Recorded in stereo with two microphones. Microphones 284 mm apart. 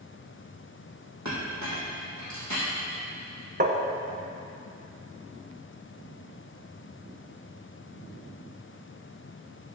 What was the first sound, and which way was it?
A clink, 75° right (ahead or behind).